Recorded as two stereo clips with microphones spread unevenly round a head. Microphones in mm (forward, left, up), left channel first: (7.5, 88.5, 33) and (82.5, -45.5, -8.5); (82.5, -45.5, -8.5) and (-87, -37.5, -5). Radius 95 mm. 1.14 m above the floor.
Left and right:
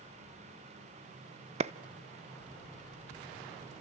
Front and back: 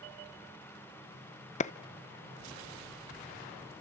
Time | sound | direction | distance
1.6 | a clap | 40° right | 0.7 m